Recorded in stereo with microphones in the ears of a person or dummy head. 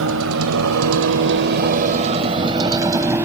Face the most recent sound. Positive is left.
turn(degrees=-15)  # may be behind; listen again after turning